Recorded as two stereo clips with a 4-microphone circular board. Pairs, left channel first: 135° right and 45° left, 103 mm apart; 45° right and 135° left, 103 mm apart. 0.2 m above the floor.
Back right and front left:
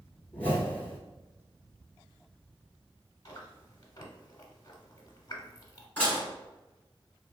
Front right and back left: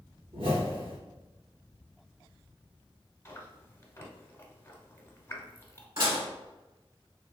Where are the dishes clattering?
155° left, 1.6 m.